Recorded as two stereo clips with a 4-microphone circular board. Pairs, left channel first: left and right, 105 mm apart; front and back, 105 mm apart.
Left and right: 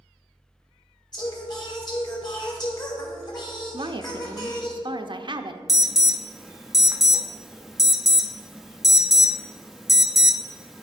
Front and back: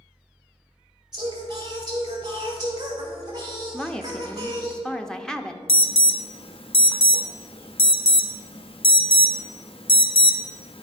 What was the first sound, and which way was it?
Singing, 135° left.